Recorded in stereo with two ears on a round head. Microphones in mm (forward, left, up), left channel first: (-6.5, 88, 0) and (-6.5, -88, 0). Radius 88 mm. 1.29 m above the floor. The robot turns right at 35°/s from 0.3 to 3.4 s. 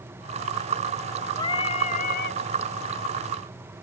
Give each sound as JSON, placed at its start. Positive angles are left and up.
{"t": 1.4, "sound": "singing", "azimuth_deg": 20}